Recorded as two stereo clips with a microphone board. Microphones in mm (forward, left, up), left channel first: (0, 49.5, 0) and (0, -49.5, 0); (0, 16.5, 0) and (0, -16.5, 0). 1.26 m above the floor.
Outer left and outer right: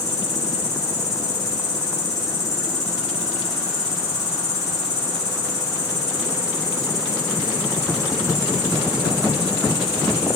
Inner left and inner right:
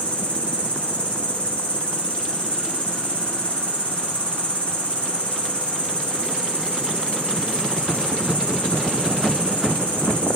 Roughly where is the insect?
Left.